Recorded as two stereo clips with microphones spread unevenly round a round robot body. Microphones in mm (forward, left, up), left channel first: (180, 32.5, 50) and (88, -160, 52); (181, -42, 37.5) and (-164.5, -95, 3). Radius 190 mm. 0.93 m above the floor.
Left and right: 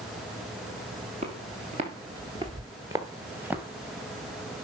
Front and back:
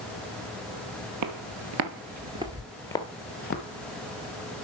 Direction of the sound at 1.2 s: 175° right.